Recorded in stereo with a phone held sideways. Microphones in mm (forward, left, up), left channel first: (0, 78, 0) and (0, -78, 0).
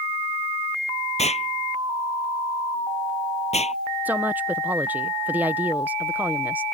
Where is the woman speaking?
10° right (ahead or behind).